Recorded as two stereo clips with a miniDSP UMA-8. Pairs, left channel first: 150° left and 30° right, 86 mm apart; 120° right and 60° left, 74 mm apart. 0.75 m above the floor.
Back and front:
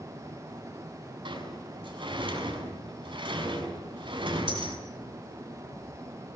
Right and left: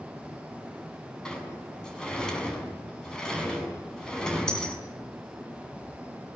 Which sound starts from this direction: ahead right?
A sliding door, at 1.2 s.